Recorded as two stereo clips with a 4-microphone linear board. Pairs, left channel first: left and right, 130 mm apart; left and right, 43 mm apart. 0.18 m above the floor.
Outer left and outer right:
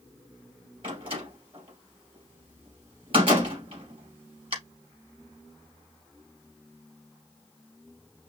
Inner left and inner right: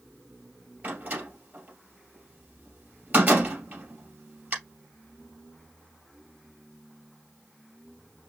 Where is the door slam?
40° right (ahead or behind), 3 m.